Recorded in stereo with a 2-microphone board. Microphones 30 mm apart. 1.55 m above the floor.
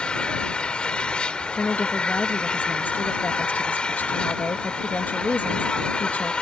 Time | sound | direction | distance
0.0 | an engine running | 30° left (ahead or behind) | ?
1.5 | a woman speaking | 75° left (ahead or behind) | ?